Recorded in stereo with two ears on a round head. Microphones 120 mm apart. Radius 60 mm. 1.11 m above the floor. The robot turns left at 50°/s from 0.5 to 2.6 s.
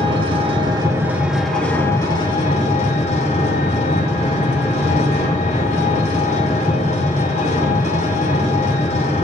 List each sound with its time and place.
0.0 s an engine running: 135° right, 1.5 m; by 9.2 s 120° left, 1.5 m